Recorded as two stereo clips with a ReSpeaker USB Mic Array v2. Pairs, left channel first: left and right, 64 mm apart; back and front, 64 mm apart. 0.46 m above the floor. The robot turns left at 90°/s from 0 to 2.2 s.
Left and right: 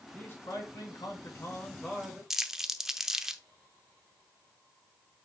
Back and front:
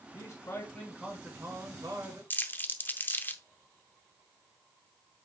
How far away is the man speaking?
About 4 m.